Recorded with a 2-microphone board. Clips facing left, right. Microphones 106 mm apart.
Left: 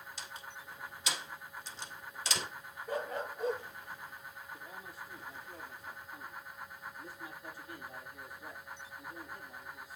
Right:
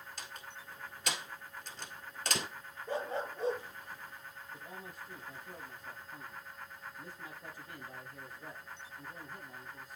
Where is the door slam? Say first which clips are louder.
Left 1 dB; 55° right (ahead or behind), 1.8 m.